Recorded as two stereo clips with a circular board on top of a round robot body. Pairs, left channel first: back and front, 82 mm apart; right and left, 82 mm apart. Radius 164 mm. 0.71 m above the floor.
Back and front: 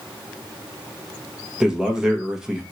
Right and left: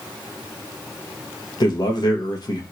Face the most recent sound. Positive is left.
turn(degrees=-80)